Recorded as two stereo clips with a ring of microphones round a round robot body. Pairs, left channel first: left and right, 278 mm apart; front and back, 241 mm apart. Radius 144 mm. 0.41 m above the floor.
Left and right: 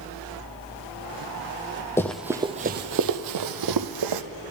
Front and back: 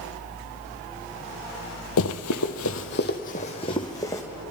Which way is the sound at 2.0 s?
10° left.